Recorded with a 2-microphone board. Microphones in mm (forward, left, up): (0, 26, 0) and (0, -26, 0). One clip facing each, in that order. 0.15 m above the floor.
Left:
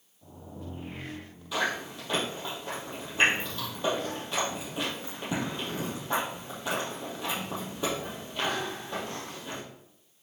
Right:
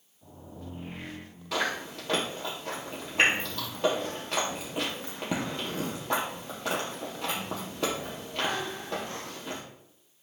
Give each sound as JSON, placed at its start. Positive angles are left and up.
{"t": 1.5, "sound": "chewing", "side_deg": -70, "distance_m": 3.5}